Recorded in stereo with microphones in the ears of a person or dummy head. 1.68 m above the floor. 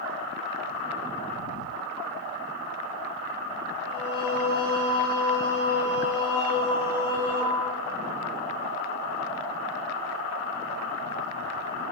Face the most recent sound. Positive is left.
turn(degrees=-20)  # may be behind; listen again after turning